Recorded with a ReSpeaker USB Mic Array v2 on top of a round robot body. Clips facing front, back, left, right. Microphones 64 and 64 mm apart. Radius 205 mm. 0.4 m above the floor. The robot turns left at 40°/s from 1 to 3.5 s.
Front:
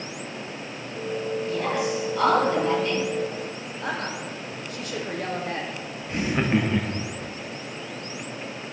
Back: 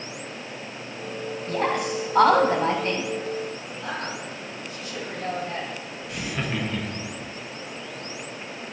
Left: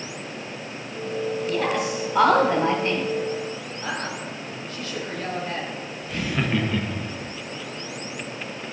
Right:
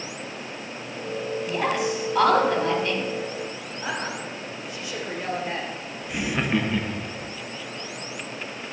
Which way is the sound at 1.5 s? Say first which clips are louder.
Back 3 dB, right 1 dB; 165° right.